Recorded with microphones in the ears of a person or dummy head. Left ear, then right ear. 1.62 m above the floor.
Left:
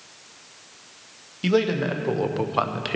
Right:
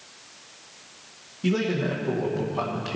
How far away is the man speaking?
About 1.8 m.